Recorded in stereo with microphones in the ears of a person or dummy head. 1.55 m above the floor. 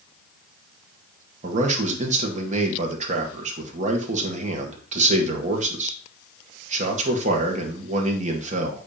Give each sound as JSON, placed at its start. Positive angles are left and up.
{"t": 1.4, "sound": "a man speaking", "side_deg": -35, "distance_m": 1.6}